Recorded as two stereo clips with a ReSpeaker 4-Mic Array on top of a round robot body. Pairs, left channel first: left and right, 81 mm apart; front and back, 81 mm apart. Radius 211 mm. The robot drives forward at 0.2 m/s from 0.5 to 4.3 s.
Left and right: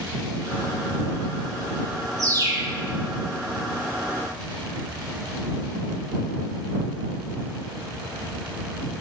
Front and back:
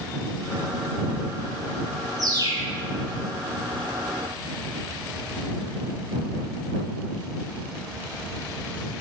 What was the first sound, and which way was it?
A bird, 135° right.